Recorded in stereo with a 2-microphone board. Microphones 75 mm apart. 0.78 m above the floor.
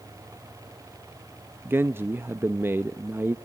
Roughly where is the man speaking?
Right.